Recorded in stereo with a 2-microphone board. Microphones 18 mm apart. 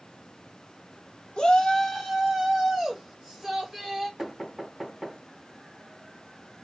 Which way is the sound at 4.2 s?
25° right (ahead or behind).